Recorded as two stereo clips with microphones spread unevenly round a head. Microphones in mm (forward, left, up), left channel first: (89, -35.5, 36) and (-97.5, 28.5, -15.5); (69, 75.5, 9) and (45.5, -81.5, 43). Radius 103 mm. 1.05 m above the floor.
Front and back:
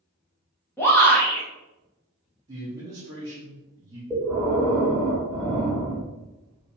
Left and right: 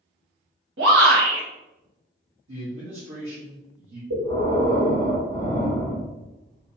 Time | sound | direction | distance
0.8 | a shout | 105° right | 1.3 m
2.5 | a man speaking | 130° right | 1.1 m
4.1 | breathing | 125° right | 1.7 m